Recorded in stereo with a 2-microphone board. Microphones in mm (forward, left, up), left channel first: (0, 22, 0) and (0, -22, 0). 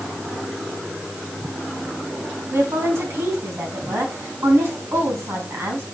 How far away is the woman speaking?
About 3.5 m.